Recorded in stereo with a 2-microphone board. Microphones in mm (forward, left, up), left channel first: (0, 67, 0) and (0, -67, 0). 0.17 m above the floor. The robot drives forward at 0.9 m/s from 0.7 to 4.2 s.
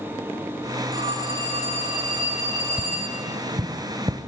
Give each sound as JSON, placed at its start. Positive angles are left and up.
{"t": 0.9, "sound": "a phone ringing", "side_deg": -35, "distance_m": 7.0}
{"t": 2.8, "sound": "tapping", "side_deg": -75, "distance_m": 0.8}